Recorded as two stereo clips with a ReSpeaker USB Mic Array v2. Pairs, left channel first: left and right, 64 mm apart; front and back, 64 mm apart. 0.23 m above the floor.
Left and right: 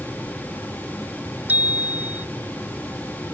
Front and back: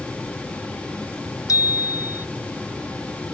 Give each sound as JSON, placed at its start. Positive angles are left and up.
{"t": 1.5, "sound": "a bicycle bell", "azimuth_deg": -25}